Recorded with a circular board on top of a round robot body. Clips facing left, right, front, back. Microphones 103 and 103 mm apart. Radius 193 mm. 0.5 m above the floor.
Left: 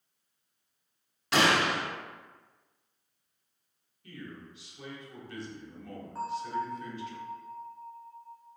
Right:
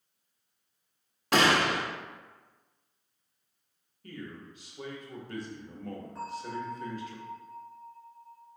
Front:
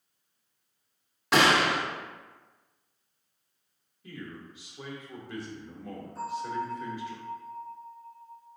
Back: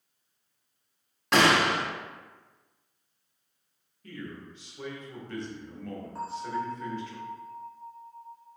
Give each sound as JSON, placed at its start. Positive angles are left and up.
{"t": 1.3, "sound": "a gunshot", "azimuth_deg": -85, "distance_m": 1.1}
{"t": 4.0, "sound": "a man speaking", "azimuth_deg": -75, "distance_m": 1.2}
{"t": 6.2, "sound": "a bell", "azimuth_deg": 150, "distance_m": 0.9}